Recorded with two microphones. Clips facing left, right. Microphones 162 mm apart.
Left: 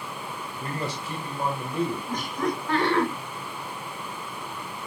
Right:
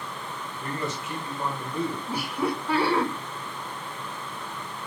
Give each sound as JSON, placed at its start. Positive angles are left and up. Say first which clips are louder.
{"t": 0.6, "sound": "a man speaking", "louder": "even", "side_deg": 35, "distance_m": 1.4}
{"t": 2.1, "sound": "laughter", "louder": "even", "side_deg": -10, "distance_m": 1.0}